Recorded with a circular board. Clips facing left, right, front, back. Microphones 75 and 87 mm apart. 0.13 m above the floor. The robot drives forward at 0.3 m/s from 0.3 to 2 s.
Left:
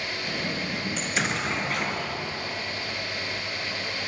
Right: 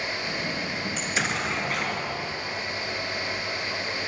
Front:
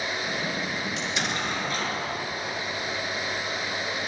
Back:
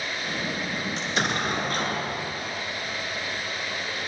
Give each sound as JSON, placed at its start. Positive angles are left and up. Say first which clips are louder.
{"t": 1.0, "sound": "an explosion", "louder": "even, back 5 dB", "azimuth_deg": 180, "distance_m": 0.9}